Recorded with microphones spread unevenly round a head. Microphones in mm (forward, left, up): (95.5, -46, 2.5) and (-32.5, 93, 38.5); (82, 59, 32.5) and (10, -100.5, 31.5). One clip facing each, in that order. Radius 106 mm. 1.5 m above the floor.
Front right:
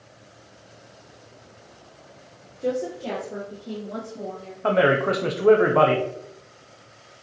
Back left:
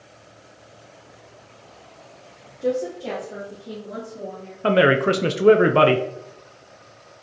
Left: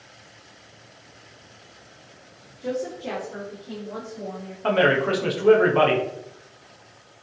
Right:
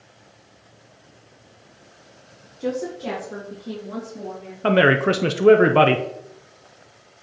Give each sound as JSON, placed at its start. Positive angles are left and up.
{"t": 2.6, "sound": "a woman speaking", "azimuth_deg": -145, "distance_m": 0.9}
{"t": 4.6, "sound": "a man speaking", "azimuth_deg": -165, "distance_m": 0.5}